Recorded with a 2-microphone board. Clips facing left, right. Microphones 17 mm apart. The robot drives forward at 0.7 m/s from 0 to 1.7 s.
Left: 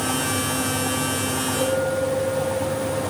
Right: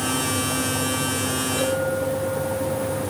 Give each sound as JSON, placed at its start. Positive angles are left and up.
{"t": 1.6, "sound": "a clink", "side_deg": -30, "distance_m": 8.5}